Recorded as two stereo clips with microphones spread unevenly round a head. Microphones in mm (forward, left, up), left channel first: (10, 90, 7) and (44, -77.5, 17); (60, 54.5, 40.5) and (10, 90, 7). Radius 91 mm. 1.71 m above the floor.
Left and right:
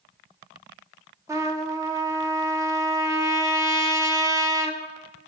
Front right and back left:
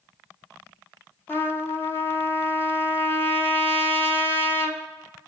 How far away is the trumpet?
About 1.2 m.